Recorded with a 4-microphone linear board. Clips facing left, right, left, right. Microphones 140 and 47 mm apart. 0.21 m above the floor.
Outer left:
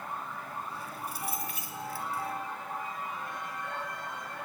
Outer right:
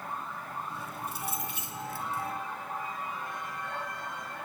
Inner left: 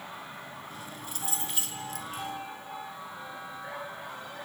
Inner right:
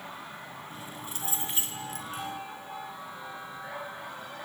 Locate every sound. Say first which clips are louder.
0.7 s keys jangling: outer right 1 dB, inner right 1 dB; 25° right (ahead or behind), 2.5 m